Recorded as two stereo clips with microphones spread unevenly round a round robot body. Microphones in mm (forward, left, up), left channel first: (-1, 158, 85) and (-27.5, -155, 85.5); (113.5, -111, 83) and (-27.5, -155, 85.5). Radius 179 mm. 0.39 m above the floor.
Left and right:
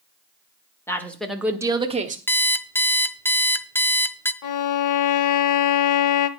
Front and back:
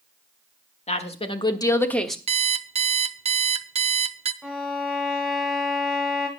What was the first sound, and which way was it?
A woman speaking, 5° left.